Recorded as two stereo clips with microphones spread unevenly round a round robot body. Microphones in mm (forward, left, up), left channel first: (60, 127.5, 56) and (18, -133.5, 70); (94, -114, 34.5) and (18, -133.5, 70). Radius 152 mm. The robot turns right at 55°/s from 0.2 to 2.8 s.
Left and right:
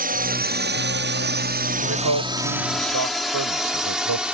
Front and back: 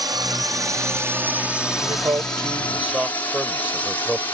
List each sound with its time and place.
0.0 s a drone: 130° right; by 4.3 s 10° right
1.8 s a man speaking: 140° right; by 4.2 s 85° right